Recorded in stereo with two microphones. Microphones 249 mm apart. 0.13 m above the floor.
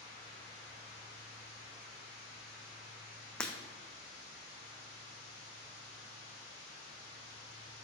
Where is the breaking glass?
5° left (ahead or behind), 1.2 m.